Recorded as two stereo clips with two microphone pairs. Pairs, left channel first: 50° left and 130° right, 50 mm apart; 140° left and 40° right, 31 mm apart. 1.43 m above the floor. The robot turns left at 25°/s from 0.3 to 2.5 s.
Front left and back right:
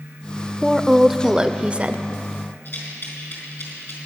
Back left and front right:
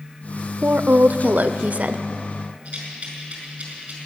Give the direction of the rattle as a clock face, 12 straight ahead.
12 o'clock.